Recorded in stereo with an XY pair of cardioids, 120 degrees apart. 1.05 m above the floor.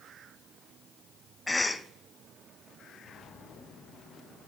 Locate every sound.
1.5 s a cough: 10° left, 0.5 m